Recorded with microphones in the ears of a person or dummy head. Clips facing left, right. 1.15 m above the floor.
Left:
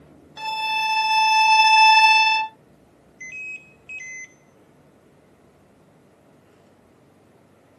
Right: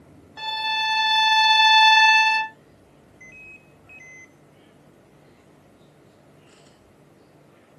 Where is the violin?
30° left (ahead or behind), 1.0 m.